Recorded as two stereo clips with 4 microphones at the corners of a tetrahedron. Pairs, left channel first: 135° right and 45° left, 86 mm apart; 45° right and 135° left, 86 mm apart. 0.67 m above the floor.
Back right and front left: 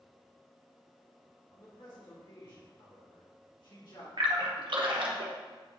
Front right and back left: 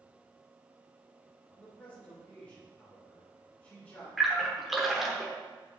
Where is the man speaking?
115° right, 2.5 m.